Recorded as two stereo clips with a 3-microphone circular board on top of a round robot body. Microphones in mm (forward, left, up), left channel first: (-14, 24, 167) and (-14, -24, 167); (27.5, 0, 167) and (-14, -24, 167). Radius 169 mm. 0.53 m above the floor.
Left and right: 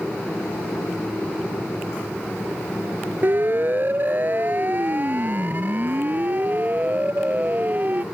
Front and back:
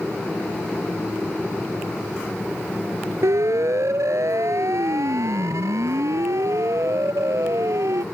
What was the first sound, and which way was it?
A siren, 140° right.